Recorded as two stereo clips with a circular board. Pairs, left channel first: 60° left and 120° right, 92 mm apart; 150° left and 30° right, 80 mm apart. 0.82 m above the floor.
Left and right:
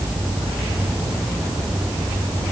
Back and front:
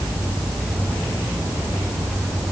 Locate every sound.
Only background noise.